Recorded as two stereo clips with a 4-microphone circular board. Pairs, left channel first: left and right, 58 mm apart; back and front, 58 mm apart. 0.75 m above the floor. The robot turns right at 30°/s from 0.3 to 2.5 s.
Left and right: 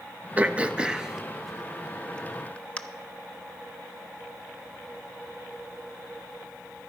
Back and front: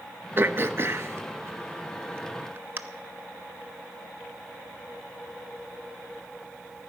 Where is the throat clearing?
35° right, 0.6 m; by 2.8 s 30° left, 0.6 m.